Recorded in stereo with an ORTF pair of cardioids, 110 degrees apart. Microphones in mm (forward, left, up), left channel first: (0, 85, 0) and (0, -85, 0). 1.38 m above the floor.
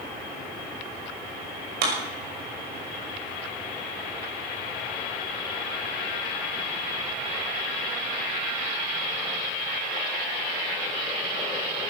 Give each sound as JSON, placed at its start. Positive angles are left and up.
{"t": 1.8, "sound": "a clap", "azimuth_deg": -70, "distance_m": 6.0}